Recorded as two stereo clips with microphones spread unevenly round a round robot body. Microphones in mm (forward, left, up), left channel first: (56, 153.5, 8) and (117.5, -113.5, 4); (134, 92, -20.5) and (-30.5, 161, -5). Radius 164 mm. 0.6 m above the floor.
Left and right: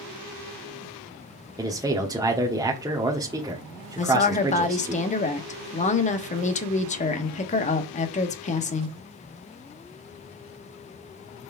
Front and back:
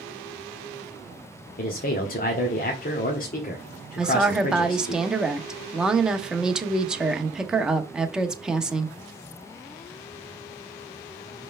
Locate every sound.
1.6 s a man speaking: 5° right, 1.2 m
4.0 s a woman speaking: 70° left, 1.0 m